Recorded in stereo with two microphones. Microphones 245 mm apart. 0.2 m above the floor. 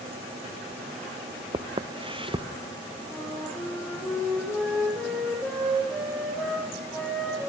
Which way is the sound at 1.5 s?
20° right (ahead or behind).